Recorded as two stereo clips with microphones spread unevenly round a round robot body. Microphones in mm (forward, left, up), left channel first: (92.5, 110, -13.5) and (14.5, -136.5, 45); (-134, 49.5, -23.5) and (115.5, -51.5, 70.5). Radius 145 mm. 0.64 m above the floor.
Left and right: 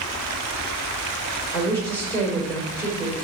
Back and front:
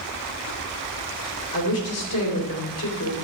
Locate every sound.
1.5 s a woman speaking: 155° left, 3 m